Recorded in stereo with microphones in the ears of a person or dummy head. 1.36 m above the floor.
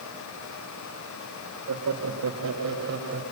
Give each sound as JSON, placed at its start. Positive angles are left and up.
{"t": 1.7, "sound": "laughter", "side_deg": -80, "distance_m": 2.5}